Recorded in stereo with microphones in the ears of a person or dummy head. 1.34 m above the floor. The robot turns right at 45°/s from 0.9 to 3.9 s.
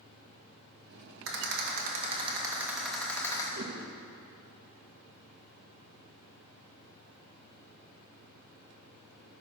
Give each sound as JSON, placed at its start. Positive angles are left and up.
{"t": 1.3, "sound": "a rattle", "side_deg": -70, "distance_m": 2.5}
{"t": 3.5, "sound": "a whoosh", "side_deg": -60, "distance_m": 1.7}